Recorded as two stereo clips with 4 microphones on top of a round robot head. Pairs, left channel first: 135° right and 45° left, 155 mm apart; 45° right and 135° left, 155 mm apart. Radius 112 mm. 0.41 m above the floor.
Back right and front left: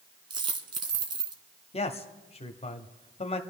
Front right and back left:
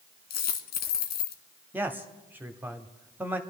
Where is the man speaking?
155° right, 1.2 m.